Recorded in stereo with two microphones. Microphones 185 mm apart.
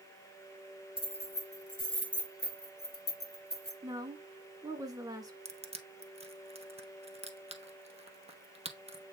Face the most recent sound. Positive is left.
turn(degrees=-35)  # may be behind; listen again after turning